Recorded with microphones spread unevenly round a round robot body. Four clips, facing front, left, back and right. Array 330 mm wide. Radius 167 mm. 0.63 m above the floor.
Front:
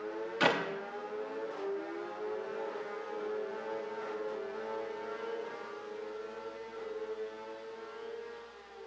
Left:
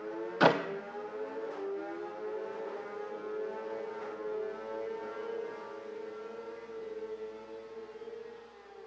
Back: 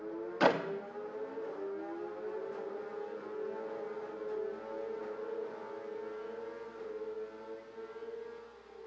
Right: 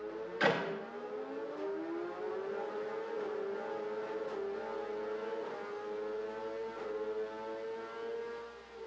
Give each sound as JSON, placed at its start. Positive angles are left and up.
{"t": 0.4, "sound": "a clap", "azimuth_deg": 95, "distance_m": 0.8}